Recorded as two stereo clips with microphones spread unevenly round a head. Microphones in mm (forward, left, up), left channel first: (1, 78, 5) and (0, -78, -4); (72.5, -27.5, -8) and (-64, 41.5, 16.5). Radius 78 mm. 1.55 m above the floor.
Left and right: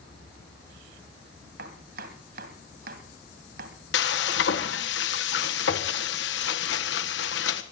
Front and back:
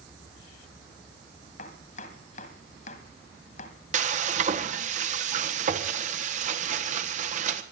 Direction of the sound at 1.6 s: 70° right.